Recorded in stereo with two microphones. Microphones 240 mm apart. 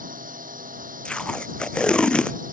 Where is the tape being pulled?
5° left (ahead or behind).